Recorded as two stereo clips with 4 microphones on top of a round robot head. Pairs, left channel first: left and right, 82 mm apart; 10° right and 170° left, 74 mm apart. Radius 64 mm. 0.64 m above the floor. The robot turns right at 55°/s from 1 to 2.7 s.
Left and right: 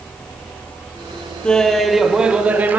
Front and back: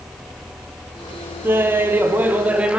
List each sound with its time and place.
1.4 s laughter: 155° left, 0.6 m; by 2.8 s 135° right, 0.6 m